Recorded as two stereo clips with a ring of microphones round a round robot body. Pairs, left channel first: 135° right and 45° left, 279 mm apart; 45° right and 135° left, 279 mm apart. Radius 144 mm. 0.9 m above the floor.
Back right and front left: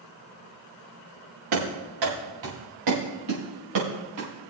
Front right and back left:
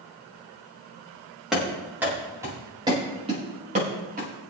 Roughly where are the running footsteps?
Ahead left.